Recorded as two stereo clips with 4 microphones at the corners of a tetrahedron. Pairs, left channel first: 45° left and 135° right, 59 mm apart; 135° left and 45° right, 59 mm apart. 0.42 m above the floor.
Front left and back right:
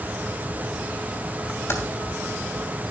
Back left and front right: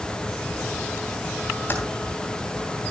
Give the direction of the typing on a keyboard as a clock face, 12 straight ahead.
9 o'clock.